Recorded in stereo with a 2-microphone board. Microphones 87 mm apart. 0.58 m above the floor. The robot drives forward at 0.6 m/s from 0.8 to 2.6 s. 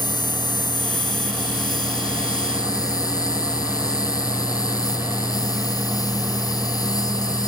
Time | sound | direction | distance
0.0 | an insect | 55° left (ahead or behind) | ?